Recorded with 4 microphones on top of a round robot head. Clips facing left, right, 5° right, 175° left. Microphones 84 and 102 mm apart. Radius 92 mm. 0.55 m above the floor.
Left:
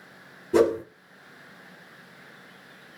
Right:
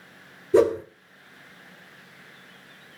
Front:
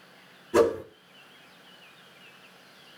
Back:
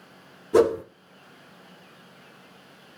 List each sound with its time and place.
0.5 s a whoosh: 105° left, 1.2 m